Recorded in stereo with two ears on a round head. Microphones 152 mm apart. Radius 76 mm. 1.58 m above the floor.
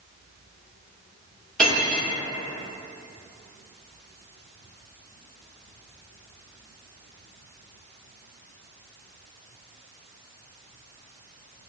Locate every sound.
1.6 s cutlery clinking: 5° left (ahead or behind), 1.2 m